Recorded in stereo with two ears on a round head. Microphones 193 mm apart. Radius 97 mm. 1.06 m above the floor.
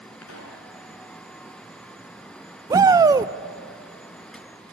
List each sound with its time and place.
0.2 s a pop: 80° left, 4 m
2.7 s a shout: 15° right (ahead or behind), 0.5 m